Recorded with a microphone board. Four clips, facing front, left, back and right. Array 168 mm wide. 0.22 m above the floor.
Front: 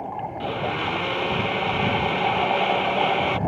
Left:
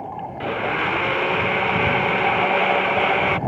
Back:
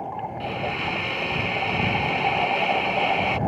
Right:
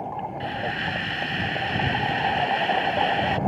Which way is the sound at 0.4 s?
75° left.